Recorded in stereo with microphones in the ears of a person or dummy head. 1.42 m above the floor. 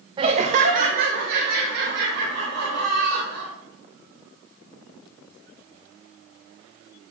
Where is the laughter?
30° right (ahead or behind), 0.7 m; by 3.5 s 60° right (ahead or behind), 4 m.